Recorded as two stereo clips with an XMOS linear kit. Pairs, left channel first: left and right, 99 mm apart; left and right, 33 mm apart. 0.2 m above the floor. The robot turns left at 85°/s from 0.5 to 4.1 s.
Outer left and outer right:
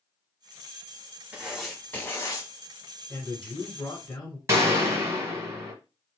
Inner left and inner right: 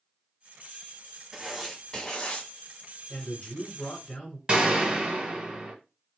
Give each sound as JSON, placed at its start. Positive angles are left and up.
{"t": 1.3, "sound": "writing", "azimuth_deg": -155, "distance_m": 1.0}
{"t": 3.1, "sound": "a man speaking", "azimuth_deg": 135, "distance_m": 1.4}
{"t": 4.5, "sound": "a gunshot", "side_deg": -30, "distance_m": 1.1}